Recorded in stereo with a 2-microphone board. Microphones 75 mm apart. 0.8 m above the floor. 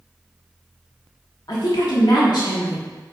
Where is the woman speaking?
70° left (ahead or behind), 1.3 m.